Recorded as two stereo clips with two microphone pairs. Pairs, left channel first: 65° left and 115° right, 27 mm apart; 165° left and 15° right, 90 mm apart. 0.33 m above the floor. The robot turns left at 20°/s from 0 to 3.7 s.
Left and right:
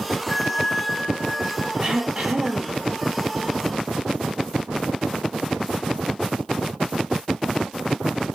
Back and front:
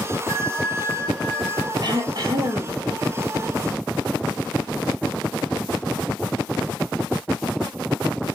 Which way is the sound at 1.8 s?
55° right.